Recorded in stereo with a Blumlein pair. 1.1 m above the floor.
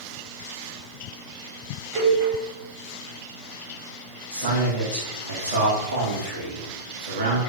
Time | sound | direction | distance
1.9 | a cowbell | 25° right | 1.1 m
4.3 | a man speaking | 70° right | 1.0 m